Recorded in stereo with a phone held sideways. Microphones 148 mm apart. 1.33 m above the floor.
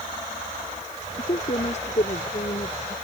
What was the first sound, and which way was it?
A woman speaking, 50° left (ahead or behind).